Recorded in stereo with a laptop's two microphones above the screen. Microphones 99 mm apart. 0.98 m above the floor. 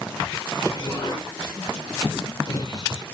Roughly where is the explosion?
Left.